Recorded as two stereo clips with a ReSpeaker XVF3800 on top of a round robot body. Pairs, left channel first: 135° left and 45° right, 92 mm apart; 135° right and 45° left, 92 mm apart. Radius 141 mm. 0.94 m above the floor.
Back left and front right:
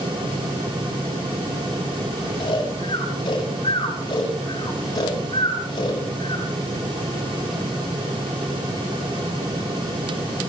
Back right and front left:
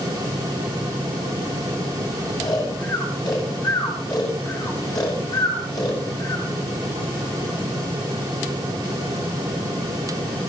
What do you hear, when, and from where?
2.4 s snoring: 175° left, 9 m